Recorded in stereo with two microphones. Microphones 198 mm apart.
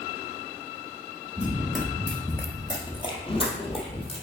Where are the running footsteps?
10° right (ahead or behind), 1.3 m; by 4.2 s 30° left (ahead or behind), 2 m.